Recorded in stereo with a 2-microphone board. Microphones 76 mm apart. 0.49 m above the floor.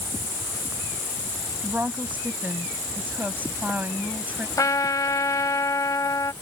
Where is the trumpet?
50° left (ahead or behind).